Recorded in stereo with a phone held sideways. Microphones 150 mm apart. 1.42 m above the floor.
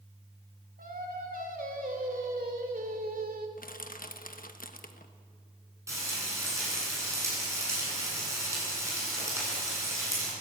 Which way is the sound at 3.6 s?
75° left (ahead or behind).